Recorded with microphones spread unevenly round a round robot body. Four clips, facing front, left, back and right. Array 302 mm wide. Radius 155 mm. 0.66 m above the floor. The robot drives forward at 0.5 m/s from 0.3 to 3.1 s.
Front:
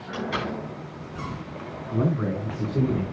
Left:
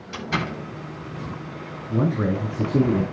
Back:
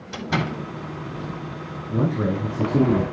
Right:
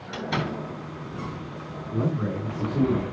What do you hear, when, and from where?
0.1 s a door slam: 175° right, 10 m
1.9 s a man speaking: 125° left, 5.5 m; by 3.0 s 130° left, 6 m